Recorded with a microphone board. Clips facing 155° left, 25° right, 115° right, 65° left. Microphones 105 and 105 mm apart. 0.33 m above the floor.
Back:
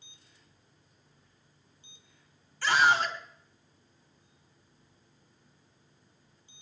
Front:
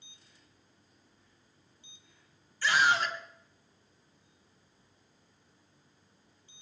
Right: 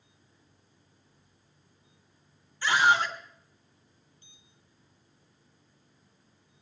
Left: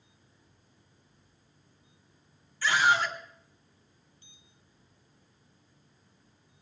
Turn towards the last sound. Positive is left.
turn(degrees=180)